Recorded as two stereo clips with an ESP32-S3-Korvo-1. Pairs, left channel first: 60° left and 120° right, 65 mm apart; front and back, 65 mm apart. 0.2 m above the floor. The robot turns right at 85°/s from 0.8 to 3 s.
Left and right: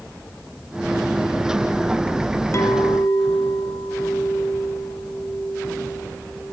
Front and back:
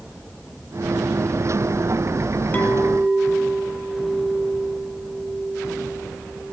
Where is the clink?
55° left, 0.9 m; by 6.5 s 90° left, 0.9 m.